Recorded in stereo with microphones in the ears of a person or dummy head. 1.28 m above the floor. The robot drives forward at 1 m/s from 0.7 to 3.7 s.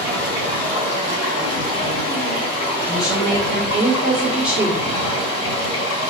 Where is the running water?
80° left, 4 m; by 6.1 s 50° left (ahead or behind), 5.5 m.